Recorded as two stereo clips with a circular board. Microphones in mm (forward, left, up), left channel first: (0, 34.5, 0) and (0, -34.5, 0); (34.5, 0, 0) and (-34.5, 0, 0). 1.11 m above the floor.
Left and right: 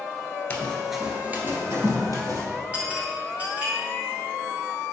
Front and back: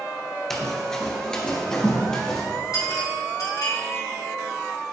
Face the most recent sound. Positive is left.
turn(degrees=-25)